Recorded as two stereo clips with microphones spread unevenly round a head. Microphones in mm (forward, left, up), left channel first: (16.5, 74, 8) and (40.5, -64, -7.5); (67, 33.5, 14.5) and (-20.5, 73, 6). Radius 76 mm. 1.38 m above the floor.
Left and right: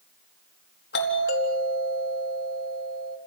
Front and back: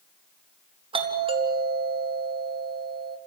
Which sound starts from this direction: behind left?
A doorbell, at 0.9 s.